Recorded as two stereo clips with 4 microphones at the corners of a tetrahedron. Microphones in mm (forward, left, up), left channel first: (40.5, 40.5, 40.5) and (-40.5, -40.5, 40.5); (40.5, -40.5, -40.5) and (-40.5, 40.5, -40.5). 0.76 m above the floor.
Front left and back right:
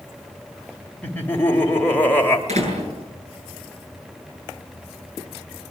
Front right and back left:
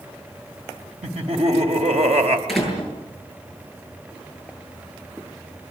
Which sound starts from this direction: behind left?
Laughter, at 1.0 s.